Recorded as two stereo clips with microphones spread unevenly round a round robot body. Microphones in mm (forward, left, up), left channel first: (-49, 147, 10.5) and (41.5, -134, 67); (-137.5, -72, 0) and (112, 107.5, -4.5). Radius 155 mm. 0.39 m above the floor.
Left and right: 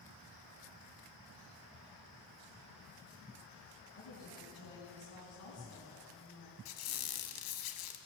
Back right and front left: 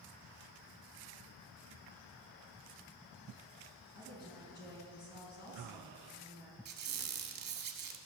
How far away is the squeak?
About 0.9 m.